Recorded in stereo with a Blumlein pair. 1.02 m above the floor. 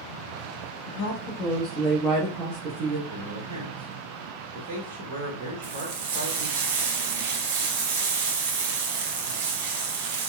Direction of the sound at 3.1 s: 45° right.